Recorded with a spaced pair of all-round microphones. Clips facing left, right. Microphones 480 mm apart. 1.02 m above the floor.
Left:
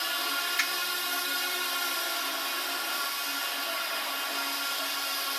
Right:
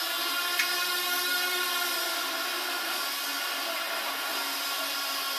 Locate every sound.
0.6 s a finger snap: 65° left (ahead or behind), 1.7 m